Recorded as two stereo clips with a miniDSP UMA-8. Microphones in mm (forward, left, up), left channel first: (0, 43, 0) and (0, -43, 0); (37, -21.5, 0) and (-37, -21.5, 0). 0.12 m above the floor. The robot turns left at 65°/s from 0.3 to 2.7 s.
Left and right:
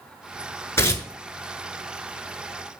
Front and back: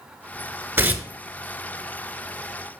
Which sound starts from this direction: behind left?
Tearing paper, at 0.8 s.